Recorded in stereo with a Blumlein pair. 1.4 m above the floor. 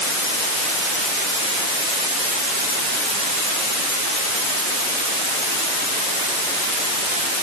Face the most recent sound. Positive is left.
No sound to turn to.